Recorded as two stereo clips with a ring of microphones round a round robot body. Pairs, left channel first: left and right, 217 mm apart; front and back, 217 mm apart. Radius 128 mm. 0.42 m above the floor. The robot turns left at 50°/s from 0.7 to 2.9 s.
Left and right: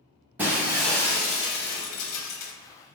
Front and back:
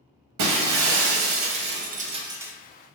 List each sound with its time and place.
0.4 s breaking glass: 175° right, 0.5 m; by 2.5 s 95° left, 0.5 m